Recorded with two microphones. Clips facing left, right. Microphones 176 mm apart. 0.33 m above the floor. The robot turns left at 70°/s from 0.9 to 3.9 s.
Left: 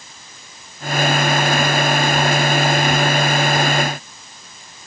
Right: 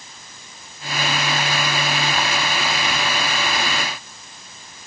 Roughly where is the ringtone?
No ringtone in this recording.